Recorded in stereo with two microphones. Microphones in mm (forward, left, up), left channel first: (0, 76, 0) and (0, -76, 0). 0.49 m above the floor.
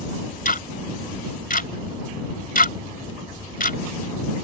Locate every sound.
0.5 s ticking: 70° left (ahead or behind)